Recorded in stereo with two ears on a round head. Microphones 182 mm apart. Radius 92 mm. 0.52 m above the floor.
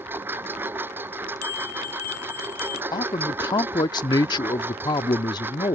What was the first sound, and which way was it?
A lawn mower, 10° right (ahead or behind).